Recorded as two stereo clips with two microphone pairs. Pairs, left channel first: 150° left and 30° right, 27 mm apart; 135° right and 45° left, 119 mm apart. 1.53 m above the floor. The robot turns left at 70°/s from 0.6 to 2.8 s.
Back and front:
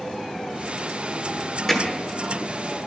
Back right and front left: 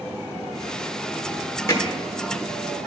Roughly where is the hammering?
Behind right.